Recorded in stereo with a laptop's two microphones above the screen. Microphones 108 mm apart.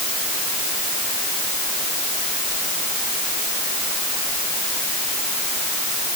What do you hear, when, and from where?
Only background noise.